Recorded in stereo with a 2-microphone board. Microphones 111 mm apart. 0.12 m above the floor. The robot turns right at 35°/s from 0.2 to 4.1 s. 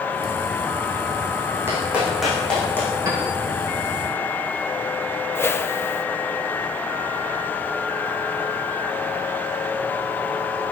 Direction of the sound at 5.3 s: 20° left (ahead or behind).